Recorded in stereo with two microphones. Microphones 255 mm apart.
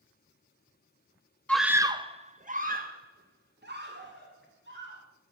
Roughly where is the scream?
Centre.